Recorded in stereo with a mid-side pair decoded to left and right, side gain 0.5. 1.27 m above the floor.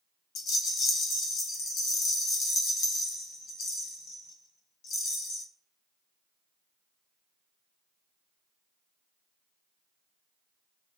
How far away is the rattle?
About 0.9 m.